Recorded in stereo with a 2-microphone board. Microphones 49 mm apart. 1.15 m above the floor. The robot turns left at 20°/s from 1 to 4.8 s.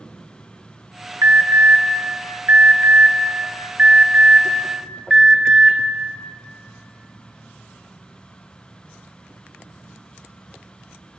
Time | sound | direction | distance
1.2 | an alarm | 80° right | 0.8 m